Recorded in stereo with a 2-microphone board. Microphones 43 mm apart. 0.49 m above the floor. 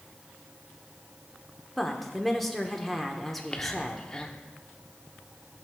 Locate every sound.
1.8 s a woman speaking: centre (ahead or behind), 1.0 m
3.3 s whispering: 20° left (ahead or behind), 0.7 m